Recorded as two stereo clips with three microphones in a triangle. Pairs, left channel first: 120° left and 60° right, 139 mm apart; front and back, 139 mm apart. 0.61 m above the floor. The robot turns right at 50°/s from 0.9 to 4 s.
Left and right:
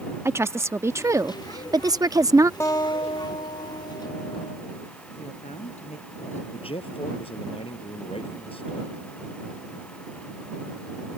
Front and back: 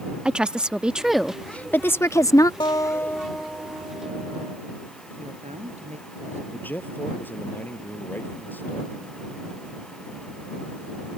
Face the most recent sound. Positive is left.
turn(degrees=75)